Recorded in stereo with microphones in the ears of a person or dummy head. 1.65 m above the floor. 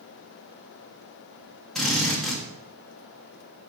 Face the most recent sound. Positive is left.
turn(degrees=0)  # may be behind; listen again after turning